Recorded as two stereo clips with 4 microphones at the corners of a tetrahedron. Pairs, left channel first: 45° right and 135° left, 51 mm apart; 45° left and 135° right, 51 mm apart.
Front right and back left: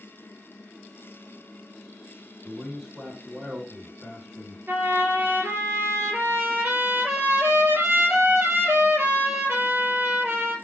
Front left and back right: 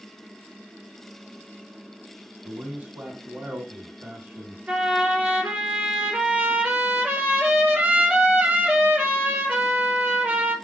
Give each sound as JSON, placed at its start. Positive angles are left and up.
{"t": 2.4, "sound": "a man speaking", "azimuth_deg": -145, "distance_m": 2.5}
{"t": 4.7, "sound": "a trumpet", "azimuth_deg": 170, "distance_m": 2.0}